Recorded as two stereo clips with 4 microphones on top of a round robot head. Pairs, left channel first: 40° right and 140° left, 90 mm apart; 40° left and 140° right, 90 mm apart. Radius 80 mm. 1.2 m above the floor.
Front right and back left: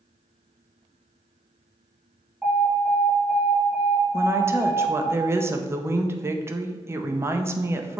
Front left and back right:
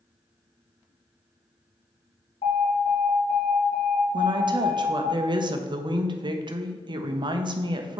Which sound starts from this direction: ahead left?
An alarm, at 2.4 s.